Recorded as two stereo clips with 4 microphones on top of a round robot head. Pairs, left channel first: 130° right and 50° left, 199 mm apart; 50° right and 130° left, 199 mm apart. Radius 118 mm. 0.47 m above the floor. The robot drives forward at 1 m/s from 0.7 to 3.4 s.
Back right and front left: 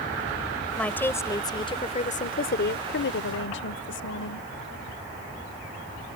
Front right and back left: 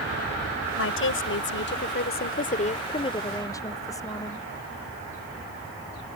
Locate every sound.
0.8 s a woman speaking: 45° right; by 4.5 s 125° right